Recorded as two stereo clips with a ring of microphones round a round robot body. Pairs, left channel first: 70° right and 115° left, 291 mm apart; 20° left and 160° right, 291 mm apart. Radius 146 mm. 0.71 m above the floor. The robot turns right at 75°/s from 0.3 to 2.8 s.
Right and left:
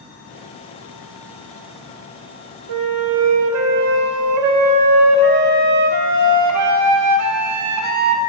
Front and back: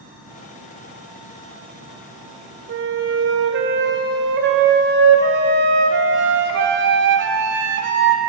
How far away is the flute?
About 0.5 m.